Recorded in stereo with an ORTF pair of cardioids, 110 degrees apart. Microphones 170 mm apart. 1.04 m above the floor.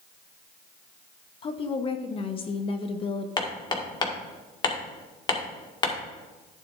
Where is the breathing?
I don't hear breathing.